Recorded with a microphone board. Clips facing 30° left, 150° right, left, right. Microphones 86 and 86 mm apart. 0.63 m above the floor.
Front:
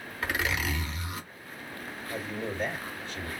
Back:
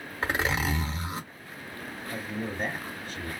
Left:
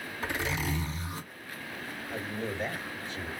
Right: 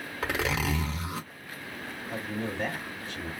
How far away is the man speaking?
About 1.7 m.